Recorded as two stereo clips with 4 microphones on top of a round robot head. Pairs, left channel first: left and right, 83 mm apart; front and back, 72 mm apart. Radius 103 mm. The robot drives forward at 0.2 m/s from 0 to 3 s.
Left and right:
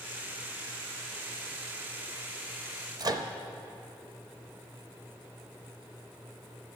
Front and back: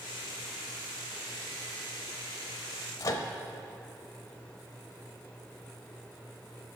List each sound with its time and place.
3.0 s a microwave: 45° right, 0.6 m